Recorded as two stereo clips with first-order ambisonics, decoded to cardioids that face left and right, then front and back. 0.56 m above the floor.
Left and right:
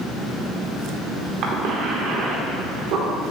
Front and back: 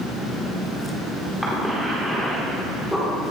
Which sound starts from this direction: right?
A cough, at 1.4 s.